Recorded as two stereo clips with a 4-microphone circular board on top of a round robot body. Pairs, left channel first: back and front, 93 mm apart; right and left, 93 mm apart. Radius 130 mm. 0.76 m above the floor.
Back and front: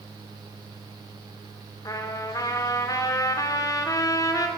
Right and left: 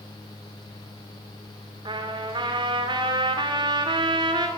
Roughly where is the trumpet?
Behind left.